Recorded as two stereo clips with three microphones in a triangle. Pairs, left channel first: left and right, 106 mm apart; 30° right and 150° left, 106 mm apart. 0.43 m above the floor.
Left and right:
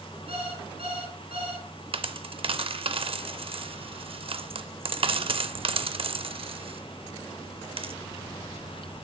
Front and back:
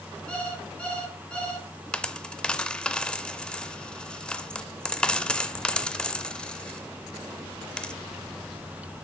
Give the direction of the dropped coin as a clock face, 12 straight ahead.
4 o'clock.